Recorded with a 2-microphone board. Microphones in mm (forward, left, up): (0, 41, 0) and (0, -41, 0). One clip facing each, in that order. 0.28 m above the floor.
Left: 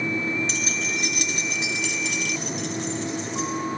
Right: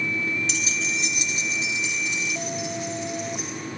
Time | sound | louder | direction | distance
0.5 | keys jangling | left 1 dB | 40° left (ahead or behind) | 2.0 m